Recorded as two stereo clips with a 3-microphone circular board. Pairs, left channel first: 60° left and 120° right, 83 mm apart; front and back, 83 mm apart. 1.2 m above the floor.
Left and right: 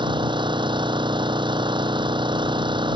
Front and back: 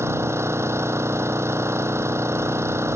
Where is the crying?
No crying in this recording.